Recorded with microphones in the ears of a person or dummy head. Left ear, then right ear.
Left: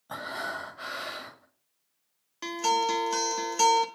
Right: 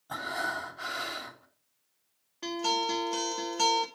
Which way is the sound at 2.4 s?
60° left (ahead or behind).